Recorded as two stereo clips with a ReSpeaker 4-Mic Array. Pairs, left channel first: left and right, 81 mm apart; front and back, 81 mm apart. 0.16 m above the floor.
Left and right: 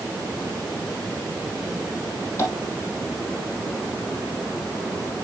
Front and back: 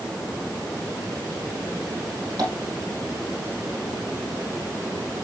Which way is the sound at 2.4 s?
140° left.